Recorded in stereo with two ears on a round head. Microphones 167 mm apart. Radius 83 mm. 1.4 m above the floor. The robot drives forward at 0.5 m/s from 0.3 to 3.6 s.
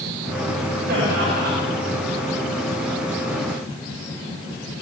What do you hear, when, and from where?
0.9 s laughter: 50° right (ahead or behind), 9 m